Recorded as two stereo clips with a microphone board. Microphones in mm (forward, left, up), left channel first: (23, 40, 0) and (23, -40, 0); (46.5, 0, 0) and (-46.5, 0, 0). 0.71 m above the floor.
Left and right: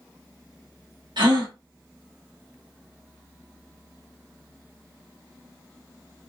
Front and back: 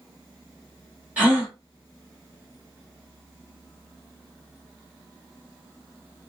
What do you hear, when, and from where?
1.2 s a gasp: 105° right, 2.5 m